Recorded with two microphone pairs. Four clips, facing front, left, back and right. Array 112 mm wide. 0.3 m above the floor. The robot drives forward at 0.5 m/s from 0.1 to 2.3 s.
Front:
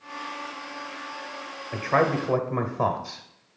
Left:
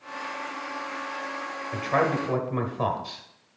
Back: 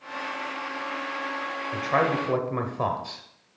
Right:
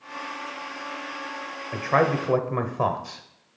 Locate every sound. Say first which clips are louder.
1.7 s a man speaking: right 3 dB, front 2 dB; 55° right, 0.9 m; by 3.2 s 95° right, 0.9 m